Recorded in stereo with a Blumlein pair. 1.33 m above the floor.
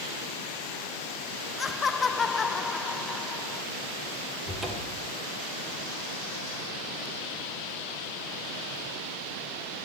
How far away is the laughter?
About 0.5 m.